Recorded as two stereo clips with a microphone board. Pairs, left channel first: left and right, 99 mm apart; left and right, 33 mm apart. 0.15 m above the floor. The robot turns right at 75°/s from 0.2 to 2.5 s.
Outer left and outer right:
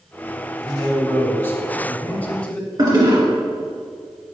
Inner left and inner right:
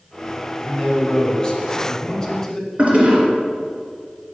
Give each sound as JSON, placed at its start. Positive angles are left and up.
{"t": 0.6, "sound": "a man speaking", "side_deg": 5, "distance_m": 1.2}
{"t": 2.8, "sound": "a toilet flushing", "side_deg": -45, "distance_m": 2.0}